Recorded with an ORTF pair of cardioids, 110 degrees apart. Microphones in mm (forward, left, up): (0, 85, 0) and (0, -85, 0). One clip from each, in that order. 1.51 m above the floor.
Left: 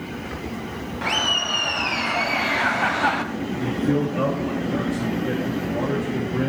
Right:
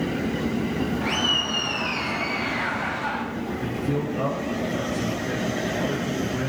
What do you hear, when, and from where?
1.0 s laughter: 25° left, 1.7 m; by 3.2 s 50° left, 0.6 m
3.6 s a man speaking: 25° left, 1.4 m